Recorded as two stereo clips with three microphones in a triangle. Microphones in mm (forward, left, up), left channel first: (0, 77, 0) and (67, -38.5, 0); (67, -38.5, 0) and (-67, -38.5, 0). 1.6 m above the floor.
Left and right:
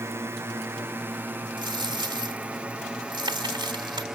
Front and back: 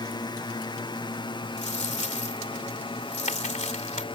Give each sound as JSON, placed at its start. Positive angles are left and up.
{"t": 0.0, "sound": "a drone", "azimuth_deg": -10}
{"t": 1.6, "sound": "a dropped coin", "azimuth_deg": -10}